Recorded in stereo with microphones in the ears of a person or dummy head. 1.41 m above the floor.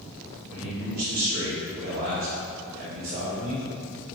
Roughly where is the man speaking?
Right.